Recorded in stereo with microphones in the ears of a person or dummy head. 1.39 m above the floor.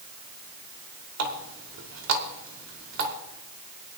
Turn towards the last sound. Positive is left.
turn(degrees=-65)  # may be behind; listen again after turning